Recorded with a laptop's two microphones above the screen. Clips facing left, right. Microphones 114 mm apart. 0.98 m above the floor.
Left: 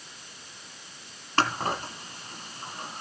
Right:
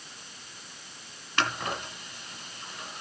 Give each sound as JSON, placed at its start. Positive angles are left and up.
{"t": 1.4, "sound": "scissors", "side_deg": 40, "distance_m": 1.6}